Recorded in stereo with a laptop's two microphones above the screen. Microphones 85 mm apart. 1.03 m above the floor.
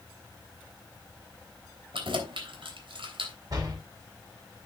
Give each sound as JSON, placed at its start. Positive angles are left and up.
{"t": 1.9, "sound": "keys jangling", "side_deg": -80, "distance_m": 3.0}
{"t": 3.5, "sound": "a door slam", "side_deg": -45, "distance_m": 6.5}